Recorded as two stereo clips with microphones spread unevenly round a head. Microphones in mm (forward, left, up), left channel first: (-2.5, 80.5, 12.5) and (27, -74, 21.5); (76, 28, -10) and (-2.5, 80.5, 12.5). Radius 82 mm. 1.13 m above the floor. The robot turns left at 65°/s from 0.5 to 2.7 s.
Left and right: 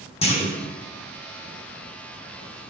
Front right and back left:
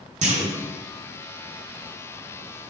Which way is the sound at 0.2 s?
155° left.